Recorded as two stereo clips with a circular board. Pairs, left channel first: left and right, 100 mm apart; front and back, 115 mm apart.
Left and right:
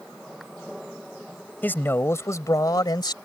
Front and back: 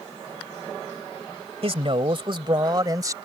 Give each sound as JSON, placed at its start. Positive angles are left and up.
{"t": 1.6, "sound": "a man speaking", "azimuth_deg": 160}